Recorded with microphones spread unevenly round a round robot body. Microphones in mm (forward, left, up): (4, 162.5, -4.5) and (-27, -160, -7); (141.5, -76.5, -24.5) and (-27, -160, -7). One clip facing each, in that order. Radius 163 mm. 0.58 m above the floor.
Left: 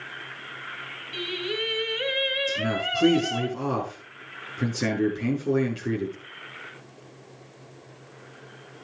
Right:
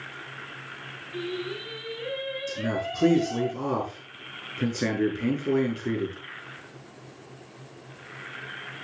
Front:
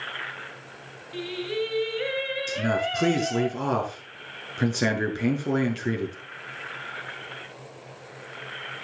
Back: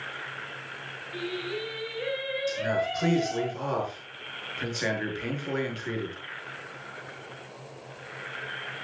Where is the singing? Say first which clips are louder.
Left 1 dB, front 4 dB; 90° left, 3.5 m.